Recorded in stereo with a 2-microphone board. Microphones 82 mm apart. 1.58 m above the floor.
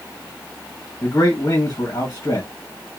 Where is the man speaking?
50° left (ahead or behind), 1.7 m.